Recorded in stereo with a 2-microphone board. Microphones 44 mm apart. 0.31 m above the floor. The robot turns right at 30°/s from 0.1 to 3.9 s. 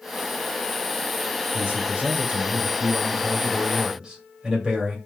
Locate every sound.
1.5 s a man speaking: 25° right (ahead or behind), 1.7 m; by 5.0 s 20° right (ahead or behind), 1.7 m